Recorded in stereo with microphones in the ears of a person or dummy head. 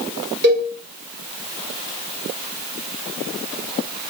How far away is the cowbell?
About 2.5 m.